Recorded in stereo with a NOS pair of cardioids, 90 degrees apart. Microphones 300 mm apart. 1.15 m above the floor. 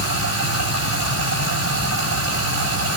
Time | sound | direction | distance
0.0 | running water | 70° right | 6 m